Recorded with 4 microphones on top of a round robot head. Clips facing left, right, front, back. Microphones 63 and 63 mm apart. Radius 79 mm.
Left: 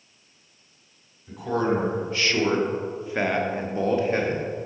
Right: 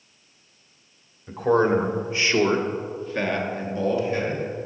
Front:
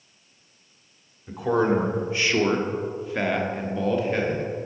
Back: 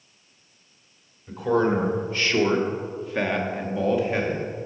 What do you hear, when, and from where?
1.3 s a man speaking: 70° right, 1.4 m; by 4.7 s 100° left, 1.5 m